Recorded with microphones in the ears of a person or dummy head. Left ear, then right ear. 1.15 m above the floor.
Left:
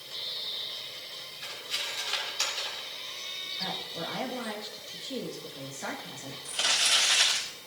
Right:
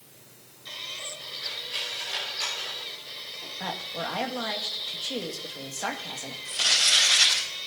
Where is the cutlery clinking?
45° left (ahead or behind), 7.5 m.